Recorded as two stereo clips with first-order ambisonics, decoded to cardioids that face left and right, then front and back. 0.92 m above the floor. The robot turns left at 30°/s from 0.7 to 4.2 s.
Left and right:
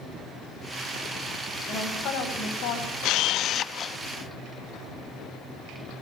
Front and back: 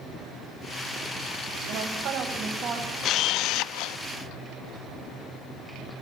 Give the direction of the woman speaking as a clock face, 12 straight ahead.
7 o'clock.